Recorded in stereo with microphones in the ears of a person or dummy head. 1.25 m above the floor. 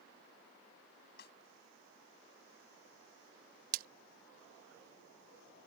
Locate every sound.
1.2 s a snare drum: 60° left (ahead or behind)
3.7 s a splash: 45° right (ahead or behind)